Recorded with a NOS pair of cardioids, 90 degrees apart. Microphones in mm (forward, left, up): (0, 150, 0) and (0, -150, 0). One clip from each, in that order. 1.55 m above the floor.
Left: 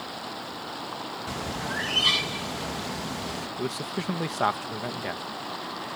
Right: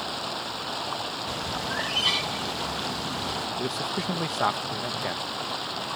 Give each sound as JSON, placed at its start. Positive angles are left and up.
{"t": 0.0, "sound": "running water", "azimuth_deg": -55}
{"t": 1.3, "sound": "a bird", "azimuth_deg": 10}
{"t": 3.6, "sound": "a man speaking", "azimuth_deg": 0}